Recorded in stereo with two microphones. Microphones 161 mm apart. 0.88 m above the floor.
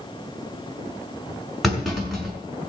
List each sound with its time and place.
1.6 s a clunk: centre (ahead or behind), 5.5 m